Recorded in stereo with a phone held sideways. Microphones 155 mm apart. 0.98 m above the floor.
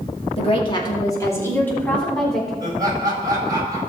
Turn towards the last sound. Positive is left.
turn(degrees=-25)  # may be behind; listen again after turning